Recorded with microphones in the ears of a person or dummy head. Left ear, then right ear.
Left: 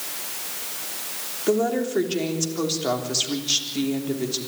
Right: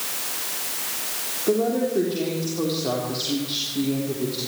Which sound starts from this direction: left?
A woman speaking, at 1.5 s.